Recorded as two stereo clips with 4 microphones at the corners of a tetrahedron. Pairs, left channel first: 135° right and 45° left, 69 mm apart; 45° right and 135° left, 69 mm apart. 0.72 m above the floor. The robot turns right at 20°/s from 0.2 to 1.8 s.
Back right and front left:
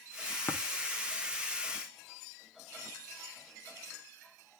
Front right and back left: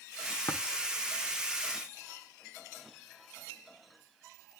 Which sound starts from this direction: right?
Tapping, at 0.5 s.